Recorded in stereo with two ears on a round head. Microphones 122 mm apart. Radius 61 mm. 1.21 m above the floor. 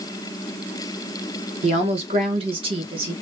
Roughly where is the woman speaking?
Right.